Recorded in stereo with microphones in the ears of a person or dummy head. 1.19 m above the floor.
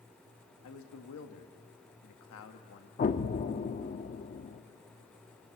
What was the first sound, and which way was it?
A man speaking, 70° left (ahead or behind).